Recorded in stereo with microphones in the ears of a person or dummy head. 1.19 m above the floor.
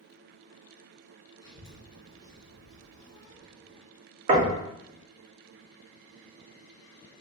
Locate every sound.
1.4 s a child speaking: 20° left (ahead or behind), 0.6 m
4.3 s knocking: 40° right (ahead or behind), 0.5 m